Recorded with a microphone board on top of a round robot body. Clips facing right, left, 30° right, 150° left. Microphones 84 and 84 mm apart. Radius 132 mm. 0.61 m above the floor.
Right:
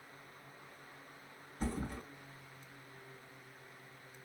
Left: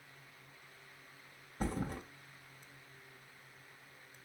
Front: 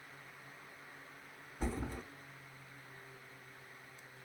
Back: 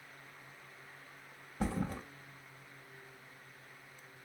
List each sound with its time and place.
1.6 s a thud: 135° left, 2 m